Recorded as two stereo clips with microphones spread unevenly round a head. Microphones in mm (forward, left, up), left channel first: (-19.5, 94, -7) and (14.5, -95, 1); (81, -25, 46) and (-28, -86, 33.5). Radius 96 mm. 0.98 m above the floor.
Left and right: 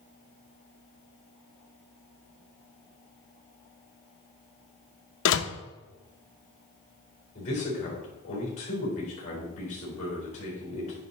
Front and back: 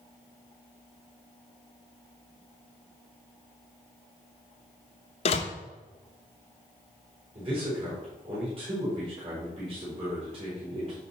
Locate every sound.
5.2 s a door slam: 80° left, 0.7 m
7.3 s a man speaking: 155° left, 4.5 m